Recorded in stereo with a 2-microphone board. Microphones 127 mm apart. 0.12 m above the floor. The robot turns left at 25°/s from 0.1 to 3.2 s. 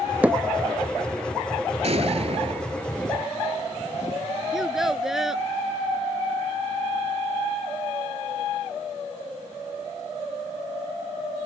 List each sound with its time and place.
0.2 s hammering: 10° right (ahead or behind); by 0.4 s 15° right (ahead or behind)
1.8 s an explosion: 55° right (ahead or behind); by 3.0 s 45° right (ahead or behind)
4.5 s a child speaking: 5° right (ahead or behind)